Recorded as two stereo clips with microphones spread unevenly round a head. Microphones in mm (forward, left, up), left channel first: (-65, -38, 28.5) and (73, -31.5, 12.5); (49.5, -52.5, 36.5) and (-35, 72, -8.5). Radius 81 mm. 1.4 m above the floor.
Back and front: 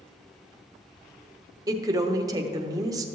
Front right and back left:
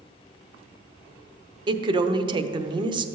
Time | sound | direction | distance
1.7 | a woman speaking | 70° left | 0.7 m